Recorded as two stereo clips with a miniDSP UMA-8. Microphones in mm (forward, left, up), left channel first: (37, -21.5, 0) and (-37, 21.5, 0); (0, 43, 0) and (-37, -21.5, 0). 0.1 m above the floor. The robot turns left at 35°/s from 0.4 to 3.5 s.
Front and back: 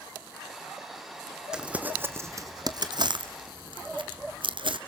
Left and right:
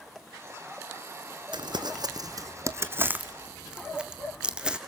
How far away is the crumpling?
About 1.5 m.